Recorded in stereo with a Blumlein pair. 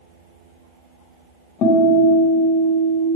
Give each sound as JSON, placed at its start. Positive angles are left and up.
{"t": 1.6, "sound": "a guitar", "azimuth_deg": 35, "distance_m": 1.3}